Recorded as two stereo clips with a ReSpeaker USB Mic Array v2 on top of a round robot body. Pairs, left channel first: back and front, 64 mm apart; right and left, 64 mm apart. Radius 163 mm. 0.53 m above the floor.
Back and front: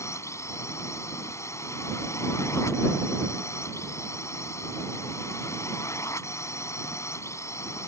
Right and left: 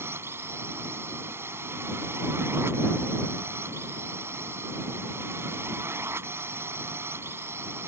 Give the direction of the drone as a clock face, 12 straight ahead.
7 o'clock.